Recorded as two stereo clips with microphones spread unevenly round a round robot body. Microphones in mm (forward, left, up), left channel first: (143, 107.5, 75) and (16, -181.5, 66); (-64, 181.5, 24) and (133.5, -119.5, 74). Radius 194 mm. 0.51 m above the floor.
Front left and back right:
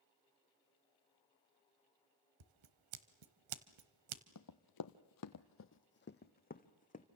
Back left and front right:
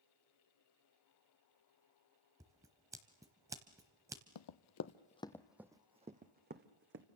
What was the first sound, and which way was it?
Scissors, 140° right.